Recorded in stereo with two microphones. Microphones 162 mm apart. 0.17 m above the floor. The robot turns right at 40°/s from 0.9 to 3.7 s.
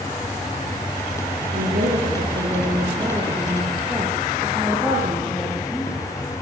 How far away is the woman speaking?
About 5 m.